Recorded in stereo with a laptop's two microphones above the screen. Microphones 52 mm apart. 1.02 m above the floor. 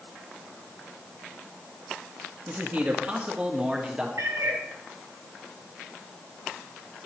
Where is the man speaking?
35° right (ahead or behind), 1.4 m; by 4.1 s 15° right (ahead or behind), 2.5 m.